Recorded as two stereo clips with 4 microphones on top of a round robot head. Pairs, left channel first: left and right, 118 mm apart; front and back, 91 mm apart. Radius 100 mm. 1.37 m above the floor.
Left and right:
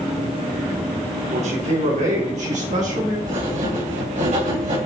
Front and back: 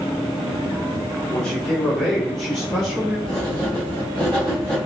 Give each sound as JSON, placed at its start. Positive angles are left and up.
{"t": 1.3, "sound": "a man speaking", "azimuth_deg": -80, "distance_m": 3.5}
{"t": 3.3, "sound": "writing", "azimuth_deg": -75, "distance_m": 4.0}